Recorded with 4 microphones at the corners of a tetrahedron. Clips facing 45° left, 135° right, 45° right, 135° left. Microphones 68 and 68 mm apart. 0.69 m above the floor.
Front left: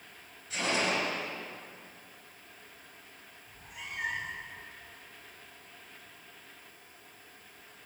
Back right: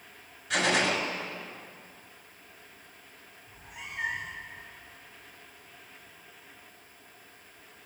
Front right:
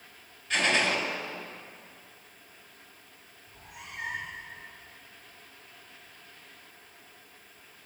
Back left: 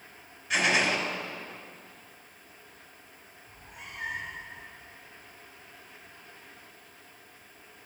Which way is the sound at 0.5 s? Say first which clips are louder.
Back right 4 dB, back left 1 dB; 145° right.